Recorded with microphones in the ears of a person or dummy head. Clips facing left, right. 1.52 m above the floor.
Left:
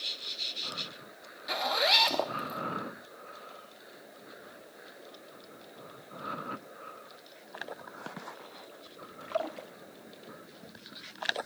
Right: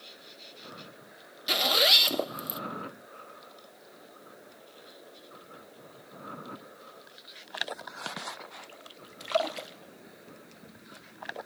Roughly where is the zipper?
Right.